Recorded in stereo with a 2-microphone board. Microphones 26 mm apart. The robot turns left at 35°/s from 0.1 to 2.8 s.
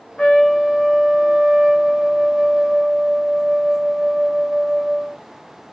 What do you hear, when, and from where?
0.2 s a trumpet: 50° left, 0.8 m; by 5.2 s 45° right, 0.8 m